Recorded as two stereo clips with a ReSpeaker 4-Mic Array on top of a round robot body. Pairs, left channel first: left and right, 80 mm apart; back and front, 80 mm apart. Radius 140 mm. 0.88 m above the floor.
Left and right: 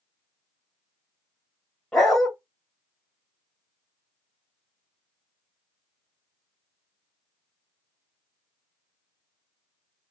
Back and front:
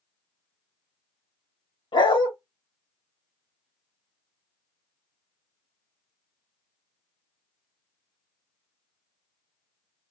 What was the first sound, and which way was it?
A dog barking, straight behind.